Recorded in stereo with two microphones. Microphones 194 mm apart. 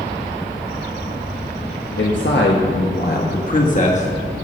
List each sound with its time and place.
2.0 s a man speaking: 75° left (ahead or behind), 1.3 m; by 4.3 s 30° left (ahead or behind), 1.8 m